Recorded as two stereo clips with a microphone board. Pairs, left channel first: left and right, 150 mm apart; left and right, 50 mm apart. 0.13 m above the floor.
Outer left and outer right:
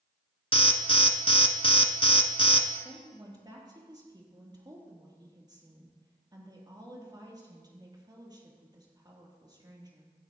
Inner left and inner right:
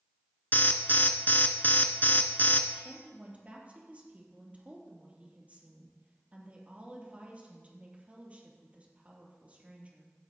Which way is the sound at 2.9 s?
30° right (ahead or behind).